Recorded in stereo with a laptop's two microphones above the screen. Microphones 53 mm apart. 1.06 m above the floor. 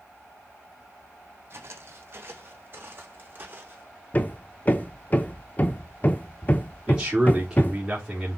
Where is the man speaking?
15° right (ahead or behind), 3.5 m.